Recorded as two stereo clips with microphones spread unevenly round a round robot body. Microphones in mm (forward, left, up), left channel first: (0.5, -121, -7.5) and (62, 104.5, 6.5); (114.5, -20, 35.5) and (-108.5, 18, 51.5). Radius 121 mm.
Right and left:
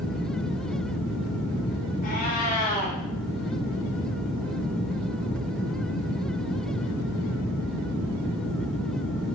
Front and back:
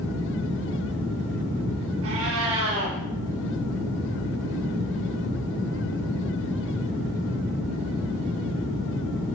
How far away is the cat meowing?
About 6.5 m.